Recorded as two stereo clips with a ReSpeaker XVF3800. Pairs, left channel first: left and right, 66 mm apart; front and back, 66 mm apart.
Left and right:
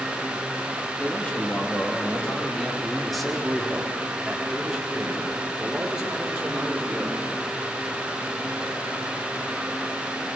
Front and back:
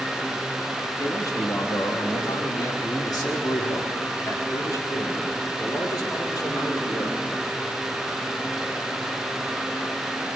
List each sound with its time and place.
1.0 s a man speaking: 25° left, 3 m; by 7.2 s 15° right, 6.5 m